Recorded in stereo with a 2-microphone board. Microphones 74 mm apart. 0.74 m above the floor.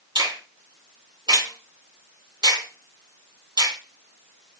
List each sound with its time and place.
0.1 s a finger snap: 75° right (ahead or behind), 2.5 m